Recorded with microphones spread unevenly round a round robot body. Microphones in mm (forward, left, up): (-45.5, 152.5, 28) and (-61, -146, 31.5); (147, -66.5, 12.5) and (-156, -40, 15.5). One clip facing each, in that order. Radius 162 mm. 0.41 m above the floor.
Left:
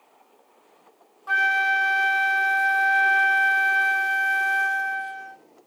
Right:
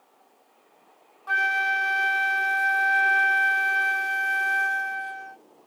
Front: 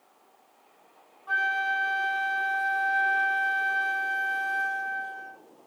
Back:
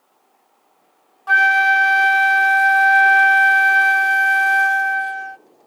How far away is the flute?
About 0.5 m.